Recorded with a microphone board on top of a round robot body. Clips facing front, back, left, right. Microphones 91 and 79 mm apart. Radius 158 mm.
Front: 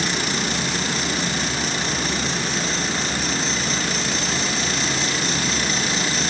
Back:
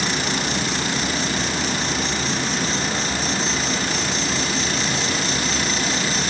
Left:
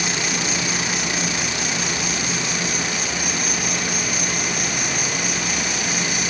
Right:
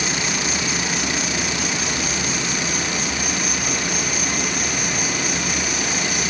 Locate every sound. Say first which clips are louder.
0.0 s an insect: back 1 dB, even; 175° left, 2.5 m